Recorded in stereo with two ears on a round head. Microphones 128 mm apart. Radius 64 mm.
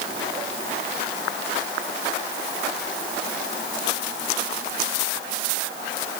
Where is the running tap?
No running tap in this recording.